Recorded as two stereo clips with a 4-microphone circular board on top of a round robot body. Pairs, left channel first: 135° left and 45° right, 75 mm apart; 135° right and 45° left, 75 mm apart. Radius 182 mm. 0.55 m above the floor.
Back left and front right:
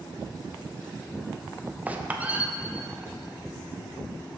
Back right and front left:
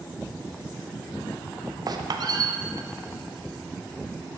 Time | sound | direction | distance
1.9 | a squeak | 25° left | 0.8 m